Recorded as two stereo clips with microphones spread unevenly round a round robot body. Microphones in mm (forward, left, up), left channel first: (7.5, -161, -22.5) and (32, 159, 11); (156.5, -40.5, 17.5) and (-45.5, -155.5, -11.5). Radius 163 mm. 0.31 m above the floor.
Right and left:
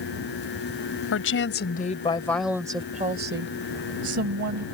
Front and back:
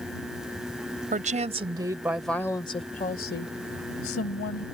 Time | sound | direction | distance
1.1 | a woman speaking | 115° right | ?